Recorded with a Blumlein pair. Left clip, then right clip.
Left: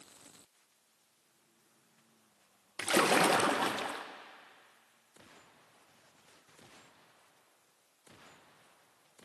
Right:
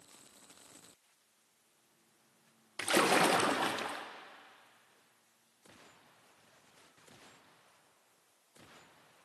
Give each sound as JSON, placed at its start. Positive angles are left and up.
{"t": 2.8, "sound": "a splash", "azimuth_deg": 5, "distance_m": 0.6}